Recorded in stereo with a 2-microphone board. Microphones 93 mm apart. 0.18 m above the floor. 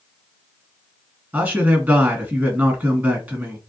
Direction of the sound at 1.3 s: 20° right (ahead or behind).